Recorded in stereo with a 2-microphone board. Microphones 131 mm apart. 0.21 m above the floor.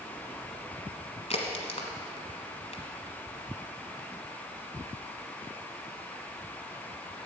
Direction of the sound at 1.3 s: 55° left (ahead or behind).